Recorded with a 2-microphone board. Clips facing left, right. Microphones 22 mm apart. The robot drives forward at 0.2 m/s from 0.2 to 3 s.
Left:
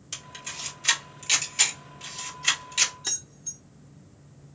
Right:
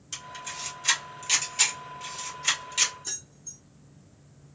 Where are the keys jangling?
55° left (ahead or behind), 0.8 m.